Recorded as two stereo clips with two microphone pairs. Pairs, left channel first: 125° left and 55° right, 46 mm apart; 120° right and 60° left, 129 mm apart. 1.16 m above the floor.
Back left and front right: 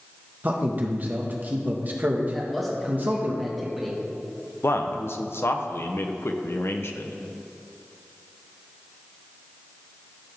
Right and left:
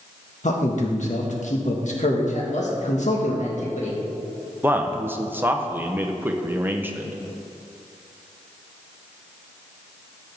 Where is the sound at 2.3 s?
140° right, 1.7 m.